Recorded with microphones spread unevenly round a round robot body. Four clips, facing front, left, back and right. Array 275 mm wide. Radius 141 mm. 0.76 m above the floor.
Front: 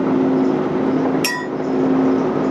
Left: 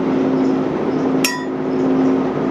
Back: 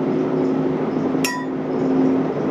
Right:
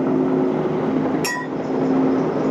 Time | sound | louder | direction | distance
1.2 | a clink | left 3 dB, even | 95° left | 1.4 m